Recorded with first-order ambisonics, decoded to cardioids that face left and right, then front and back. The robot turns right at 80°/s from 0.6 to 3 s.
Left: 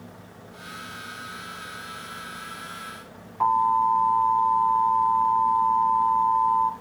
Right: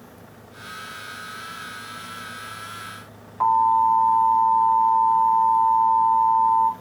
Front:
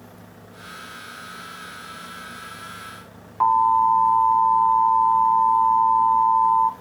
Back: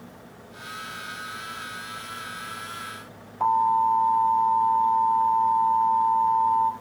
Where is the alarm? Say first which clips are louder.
Right 3 dB, front 4 dB; 15° right, 1.6 m.